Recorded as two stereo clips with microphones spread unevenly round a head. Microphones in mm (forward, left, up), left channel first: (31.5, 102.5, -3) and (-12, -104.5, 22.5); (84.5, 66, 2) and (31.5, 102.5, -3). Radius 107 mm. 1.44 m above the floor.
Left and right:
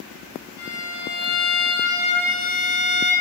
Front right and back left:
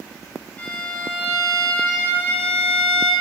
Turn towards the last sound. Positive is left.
turn(degrees=30)